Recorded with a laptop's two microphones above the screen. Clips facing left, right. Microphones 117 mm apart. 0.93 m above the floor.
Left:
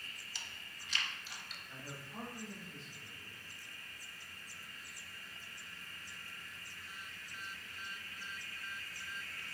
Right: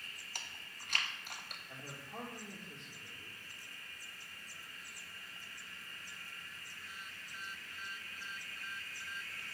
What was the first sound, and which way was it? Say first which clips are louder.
Chewing: right 4 dB; 50° right (ahead or behind).